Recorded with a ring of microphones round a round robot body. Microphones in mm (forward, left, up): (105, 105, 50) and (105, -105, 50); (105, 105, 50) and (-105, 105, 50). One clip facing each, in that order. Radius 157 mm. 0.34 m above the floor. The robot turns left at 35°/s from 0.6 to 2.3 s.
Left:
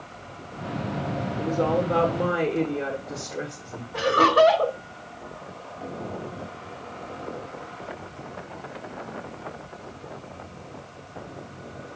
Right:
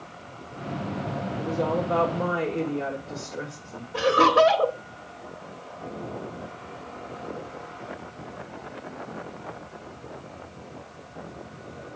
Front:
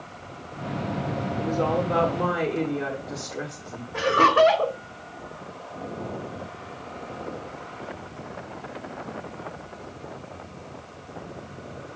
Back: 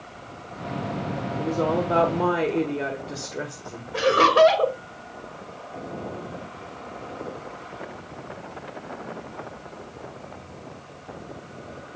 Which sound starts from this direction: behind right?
Laughter, at 3.9 s.